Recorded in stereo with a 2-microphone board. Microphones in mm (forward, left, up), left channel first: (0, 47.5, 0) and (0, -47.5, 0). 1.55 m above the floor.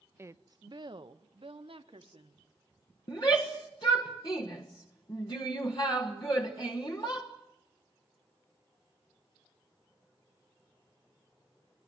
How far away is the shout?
About 1.5 m.